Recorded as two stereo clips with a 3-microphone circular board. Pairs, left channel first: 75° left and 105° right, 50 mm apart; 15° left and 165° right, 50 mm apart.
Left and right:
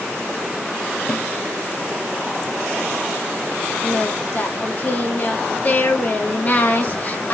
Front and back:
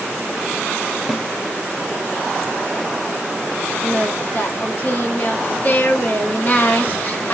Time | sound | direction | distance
1.1 | a snare drum | 115° left | 0.7 m
3.8 | singing | 45° left | 0.8 m